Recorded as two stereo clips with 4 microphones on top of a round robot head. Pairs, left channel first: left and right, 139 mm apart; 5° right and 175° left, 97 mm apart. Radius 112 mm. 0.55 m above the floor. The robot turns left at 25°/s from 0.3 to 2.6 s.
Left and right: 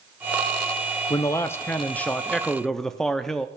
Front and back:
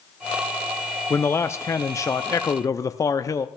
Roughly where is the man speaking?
Ahead left.